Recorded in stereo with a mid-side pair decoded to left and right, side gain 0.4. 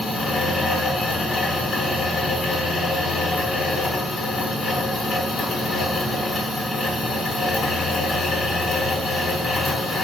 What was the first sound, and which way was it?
A fan, 65° left.